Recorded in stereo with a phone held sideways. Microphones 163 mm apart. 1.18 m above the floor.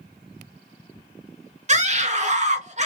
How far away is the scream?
About 0.8 m.